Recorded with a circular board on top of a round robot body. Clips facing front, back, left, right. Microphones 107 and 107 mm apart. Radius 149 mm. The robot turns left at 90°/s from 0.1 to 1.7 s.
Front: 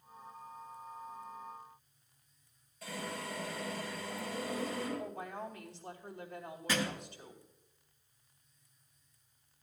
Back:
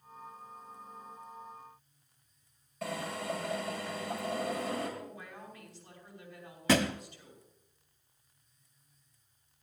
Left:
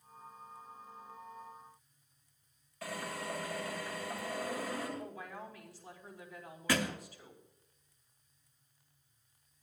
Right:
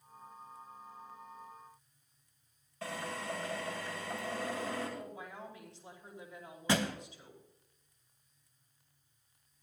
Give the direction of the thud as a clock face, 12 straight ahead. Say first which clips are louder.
Back 8 dB, right 1 dB; 5 o'clock.